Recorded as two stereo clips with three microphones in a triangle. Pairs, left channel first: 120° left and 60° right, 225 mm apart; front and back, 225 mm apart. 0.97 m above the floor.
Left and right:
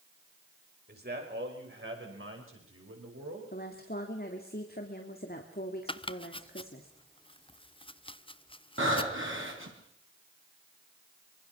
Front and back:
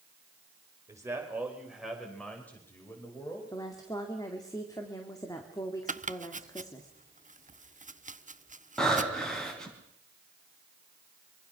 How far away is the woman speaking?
About 2.5 m.